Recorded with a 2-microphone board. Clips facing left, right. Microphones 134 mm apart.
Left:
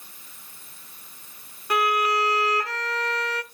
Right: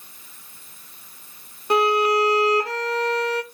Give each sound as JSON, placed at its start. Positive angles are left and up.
{"t": 1.7, "sound": "a violin", "side_deg": -30, "distance_m": 0.5}